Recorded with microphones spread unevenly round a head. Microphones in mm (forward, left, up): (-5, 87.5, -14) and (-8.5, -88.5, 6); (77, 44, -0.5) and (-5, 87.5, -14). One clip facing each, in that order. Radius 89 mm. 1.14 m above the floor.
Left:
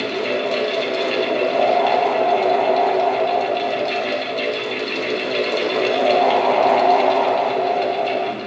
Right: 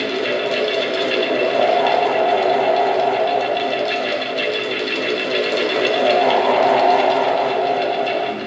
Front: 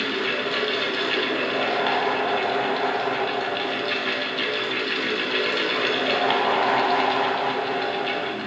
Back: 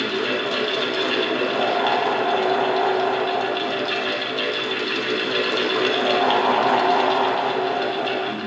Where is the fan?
155° right, 0.7 m.